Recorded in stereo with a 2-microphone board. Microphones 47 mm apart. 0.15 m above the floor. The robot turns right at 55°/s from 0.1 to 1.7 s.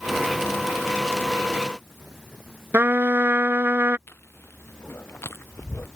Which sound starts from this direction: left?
Chewing, at 4.1 s.